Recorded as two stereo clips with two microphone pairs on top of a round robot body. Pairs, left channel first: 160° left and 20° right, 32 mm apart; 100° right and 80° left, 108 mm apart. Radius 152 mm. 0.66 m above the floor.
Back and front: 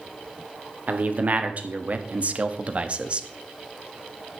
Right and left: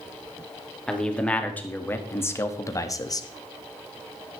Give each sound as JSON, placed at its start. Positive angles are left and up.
{"t": 0.9, "sound": "a man speaking", "azimuth_deg": -20, "distance_m": 2.0}